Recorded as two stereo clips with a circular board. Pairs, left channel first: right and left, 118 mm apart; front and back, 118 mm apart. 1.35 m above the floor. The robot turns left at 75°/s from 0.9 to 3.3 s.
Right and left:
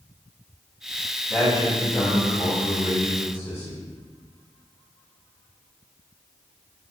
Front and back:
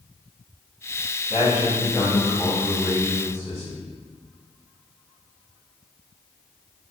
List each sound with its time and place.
1.3 s a man speaking: 10° right, 1.5 m; by 3.8 s 160° right, 1.5 m